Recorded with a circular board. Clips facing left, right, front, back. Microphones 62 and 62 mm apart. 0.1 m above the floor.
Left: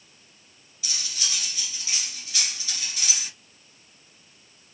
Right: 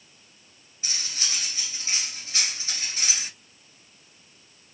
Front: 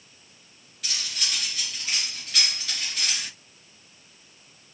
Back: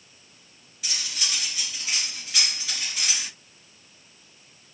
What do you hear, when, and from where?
0.8 s cutlery clinking: 100° right, 0.9 m